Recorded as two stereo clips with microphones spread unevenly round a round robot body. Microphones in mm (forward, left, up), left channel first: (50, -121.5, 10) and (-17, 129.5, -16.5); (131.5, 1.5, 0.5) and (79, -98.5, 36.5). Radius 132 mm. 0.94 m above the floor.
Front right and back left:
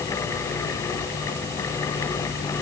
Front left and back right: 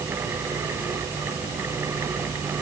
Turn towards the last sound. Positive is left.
No sound to turn to.